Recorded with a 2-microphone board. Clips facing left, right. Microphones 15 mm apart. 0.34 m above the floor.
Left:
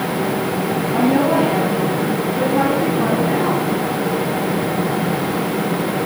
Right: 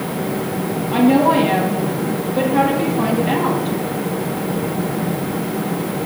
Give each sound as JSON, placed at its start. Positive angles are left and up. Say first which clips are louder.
{"t": 0.9, "sound": "a woman speaking", "louder": "right 3 dB", "side_deg": -80, "distance_m": 9.5}